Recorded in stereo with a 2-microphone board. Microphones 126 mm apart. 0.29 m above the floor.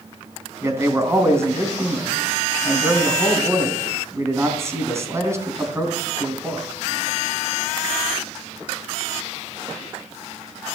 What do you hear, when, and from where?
0.6 s a man speaking: 20° right (ahead or behind), 3 m